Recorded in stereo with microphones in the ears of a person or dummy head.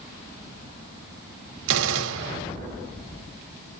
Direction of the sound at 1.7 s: 80° right.